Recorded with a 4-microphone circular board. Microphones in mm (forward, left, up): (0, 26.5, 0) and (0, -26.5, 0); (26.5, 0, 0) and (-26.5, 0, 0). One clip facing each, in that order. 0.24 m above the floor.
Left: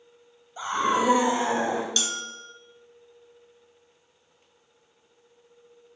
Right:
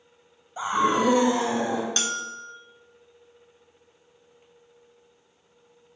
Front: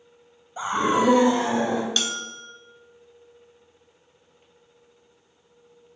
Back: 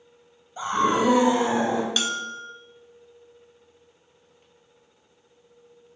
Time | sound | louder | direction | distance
0.6 | a scream | right 2 dB, even | 45° right | 1.1 m
2.0 | a bell | right 2 dB, back 2 dB | 105° right | 0.9 m